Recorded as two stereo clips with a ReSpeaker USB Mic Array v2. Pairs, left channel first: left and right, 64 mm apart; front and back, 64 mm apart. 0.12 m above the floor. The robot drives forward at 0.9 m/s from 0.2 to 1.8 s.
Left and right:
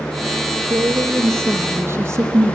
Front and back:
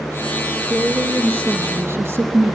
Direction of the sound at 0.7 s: 120° right.